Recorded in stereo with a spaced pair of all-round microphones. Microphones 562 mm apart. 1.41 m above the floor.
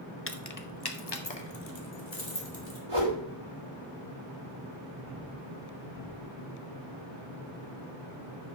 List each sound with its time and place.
0.3 s keys jangling: 25° left (ahead or behind), 0.6 m; by 2.8 s 55° left (ahead or behind), 2 m
2.9 s a whoosh: 65° right (ahead or behind), 3 m